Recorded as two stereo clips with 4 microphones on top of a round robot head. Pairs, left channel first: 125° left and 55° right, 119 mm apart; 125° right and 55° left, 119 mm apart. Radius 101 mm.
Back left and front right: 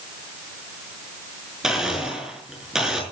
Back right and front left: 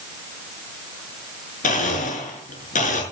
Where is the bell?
No bell in this recording.